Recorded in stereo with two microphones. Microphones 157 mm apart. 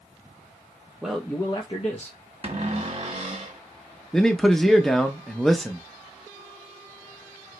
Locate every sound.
1.0 s a man speaking: 5° right (ahead or behind), 0.5 m; by 2.2 s 50° left (ahead or behind), 0.9 m
2.4 s a cupboard door: 40° right (ahead or behind), 1.0 m
4.1 s a man speaking: 5° left (ahead or behind), 0.5 m